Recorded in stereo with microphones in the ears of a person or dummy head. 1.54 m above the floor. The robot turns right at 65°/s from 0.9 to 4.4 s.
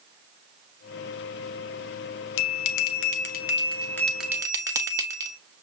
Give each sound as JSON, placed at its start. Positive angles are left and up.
{"t": 2.4, "sound": "a bell", "azimuth_deg": 70, "distance_m": 0.7}